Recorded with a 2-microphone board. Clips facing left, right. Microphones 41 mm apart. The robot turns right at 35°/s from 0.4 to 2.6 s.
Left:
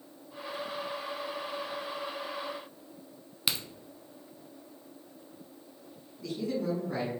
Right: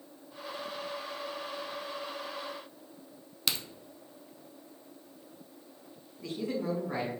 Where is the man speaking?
30° right (ahead or behind), 2 m.